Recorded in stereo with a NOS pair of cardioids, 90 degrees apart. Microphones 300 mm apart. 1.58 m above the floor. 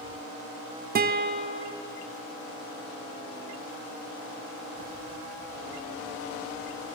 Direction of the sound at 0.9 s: 30° right.